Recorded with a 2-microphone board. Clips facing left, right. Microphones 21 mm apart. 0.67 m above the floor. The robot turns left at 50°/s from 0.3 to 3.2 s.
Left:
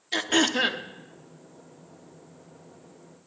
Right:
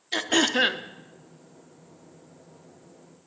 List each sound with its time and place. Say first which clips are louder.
0.1 s throat clearing: right 1 dB; centre (ahead or behind), 0.5 m; by 0.8 s 25° right (ahead or behind), 0.5 m